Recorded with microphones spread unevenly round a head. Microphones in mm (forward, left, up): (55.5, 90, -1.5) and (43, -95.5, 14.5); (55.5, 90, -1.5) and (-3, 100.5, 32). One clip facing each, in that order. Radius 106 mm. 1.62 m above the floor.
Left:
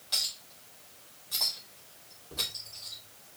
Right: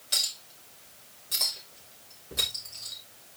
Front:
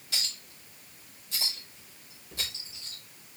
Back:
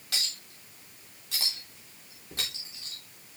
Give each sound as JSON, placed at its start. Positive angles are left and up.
{"t": 0.1, "sound": "a clink", "azimuth_deg": -165, "distance_m": 3.5}